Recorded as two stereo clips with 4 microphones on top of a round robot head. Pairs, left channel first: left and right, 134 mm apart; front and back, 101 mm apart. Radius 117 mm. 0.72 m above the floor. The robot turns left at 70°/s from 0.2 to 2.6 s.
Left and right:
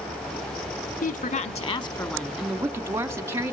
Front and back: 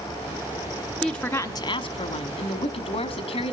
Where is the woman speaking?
90° left, 1.5 m; by 3.5 s 20° right, 1.5 m.